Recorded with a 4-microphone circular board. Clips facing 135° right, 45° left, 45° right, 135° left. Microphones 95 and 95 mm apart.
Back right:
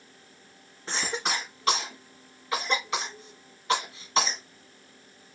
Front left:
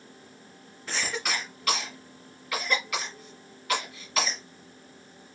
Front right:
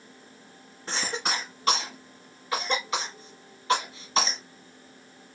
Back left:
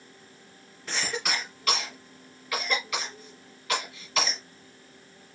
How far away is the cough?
About 1.3 m.